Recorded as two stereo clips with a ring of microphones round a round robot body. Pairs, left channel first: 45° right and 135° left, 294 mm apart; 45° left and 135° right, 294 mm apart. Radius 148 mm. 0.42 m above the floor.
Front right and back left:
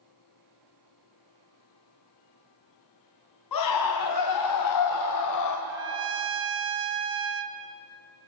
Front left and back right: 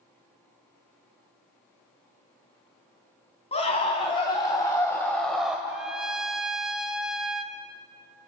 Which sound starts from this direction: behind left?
A trumpet, at 5.7 s.